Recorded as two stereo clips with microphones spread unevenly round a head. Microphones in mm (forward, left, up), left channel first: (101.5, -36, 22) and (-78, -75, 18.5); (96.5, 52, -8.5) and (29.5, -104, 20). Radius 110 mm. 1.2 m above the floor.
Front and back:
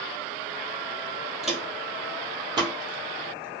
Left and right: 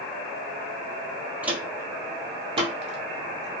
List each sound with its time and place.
1.4 s footsteps: 75° right, 1.2 m; by 3.6 s 125° right, 1.8 m